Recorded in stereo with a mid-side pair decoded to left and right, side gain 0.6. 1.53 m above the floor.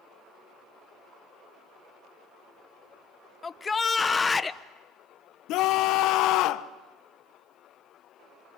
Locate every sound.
3.4 s a shout: 20° left, 1.3 m
5.5 s a scream: 65° left, 1.3 m